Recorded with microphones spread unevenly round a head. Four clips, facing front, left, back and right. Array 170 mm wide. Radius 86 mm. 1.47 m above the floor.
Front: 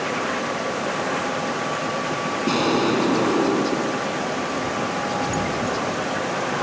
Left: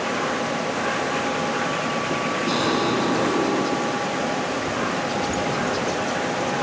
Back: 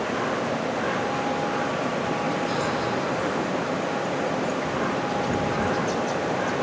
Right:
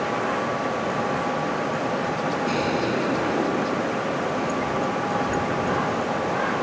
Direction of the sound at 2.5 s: 15° left.